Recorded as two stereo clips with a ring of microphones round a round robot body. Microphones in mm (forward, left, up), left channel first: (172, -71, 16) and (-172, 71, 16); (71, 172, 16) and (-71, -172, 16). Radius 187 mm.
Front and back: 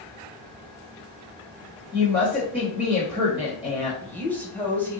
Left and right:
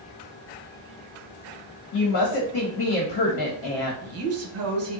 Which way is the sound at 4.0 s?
105° right.